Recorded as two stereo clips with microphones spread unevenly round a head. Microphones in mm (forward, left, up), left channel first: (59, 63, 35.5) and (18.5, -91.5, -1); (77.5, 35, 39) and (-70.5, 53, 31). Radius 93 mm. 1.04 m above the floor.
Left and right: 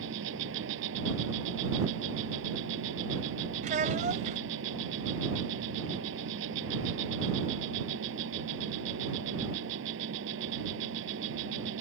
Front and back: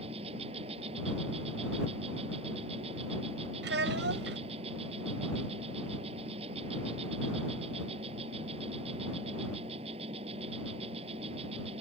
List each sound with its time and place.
0.0 s an insect: 125° right
3.6 s a child speaking: 160° right